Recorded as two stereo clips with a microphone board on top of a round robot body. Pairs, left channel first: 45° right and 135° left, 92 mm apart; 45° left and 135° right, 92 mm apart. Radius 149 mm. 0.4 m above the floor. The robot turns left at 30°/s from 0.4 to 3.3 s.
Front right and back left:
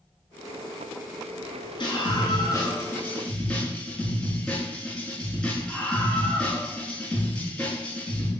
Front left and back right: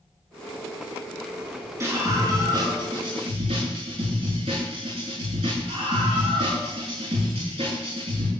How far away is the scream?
About 9 m.